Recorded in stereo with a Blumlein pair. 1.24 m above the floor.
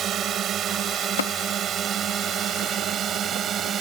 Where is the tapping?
65° left.